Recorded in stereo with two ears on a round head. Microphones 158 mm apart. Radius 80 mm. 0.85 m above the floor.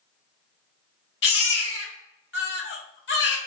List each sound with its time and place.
1.2 s a baby crying: 75° left (ahead or behind), 1.4 m